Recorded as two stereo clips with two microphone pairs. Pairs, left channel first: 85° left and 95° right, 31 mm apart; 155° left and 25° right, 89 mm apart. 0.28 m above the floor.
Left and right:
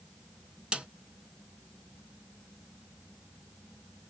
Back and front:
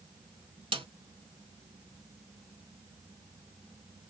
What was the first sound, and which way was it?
A snare drum, 35° right.